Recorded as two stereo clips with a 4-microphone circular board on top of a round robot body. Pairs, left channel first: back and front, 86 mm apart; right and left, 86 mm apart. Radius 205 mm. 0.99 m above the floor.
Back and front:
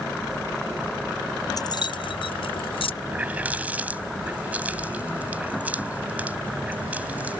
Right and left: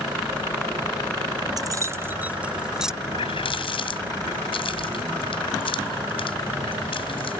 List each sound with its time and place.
1.6 s keys jangling: 135° left; by 2.9 s 175° left
3.0 s a running tap: 75° right